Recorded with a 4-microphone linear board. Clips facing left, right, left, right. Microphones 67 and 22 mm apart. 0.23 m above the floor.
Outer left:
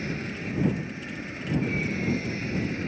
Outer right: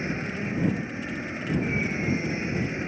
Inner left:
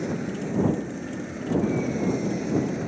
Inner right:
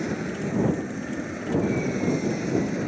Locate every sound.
0.0 s an aircraft: 25° right (ahead or behind); by 2.9 s 20° right (ahead or behind)